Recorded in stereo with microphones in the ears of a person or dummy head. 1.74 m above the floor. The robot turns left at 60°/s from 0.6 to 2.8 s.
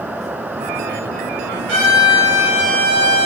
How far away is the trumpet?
About 9.5 m.